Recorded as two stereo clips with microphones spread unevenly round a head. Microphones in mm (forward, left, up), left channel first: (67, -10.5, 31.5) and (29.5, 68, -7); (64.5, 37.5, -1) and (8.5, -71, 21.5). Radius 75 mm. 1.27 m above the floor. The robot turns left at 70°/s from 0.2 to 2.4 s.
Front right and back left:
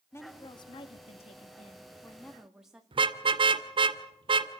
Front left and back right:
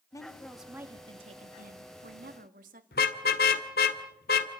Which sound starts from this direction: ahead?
A woman speaking, at 0.1 s.